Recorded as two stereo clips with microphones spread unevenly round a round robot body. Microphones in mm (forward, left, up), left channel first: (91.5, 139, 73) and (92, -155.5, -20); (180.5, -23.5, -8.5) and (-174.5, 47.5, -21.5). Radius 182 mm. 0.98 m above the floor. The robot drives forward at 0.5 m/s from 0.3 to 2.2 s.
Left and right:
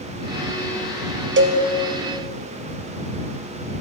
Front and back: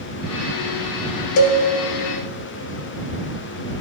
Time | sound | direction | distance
1.4 | a cowbell | 30° right | 0.9 m